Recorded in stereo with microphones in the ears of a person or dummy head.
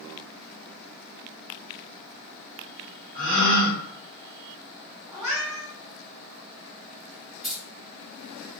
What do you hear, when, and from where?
3.1 s a gasp: 75° right (ahead or behind), 1.3 m
5.1 s a cat meowing: 15° right (ahead or behind), 1.9 m
7.4 s keys jangling: centre (ahead or behind), 1.3 m